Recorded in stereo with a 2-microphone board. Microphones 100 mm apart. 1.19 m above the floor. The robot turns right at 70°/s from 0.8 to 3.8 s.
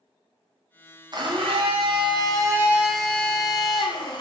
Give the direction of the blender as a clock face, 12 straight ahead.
4 o'clock.